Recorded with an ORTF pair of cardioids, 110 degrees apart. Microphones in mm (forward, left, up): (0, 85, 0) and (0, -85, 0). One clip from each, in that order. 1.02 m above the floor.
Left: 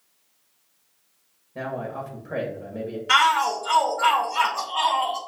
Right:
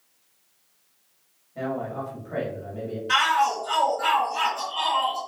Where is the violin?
I don't hear a violin.